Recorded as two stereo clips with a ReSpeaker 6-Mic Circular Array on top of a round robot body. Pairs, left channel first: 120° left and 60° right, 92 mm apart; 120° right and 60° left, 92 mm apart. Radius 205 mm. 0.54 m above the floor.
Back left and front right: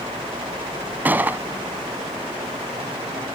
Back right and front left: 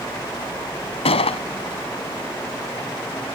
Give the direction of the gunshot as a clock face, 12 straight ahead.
4 o'clock.